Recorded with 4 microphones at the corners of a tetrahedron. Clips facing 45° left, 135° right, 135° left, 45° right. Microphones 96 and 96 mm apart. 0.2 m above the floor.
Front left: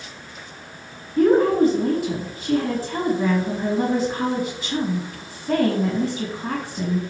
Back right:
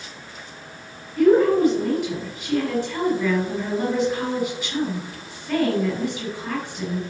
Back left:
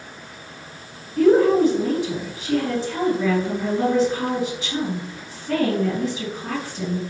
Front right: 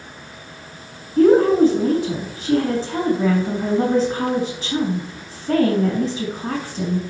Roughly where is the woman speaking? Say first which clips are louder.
Even, front right 2 dB; ahead.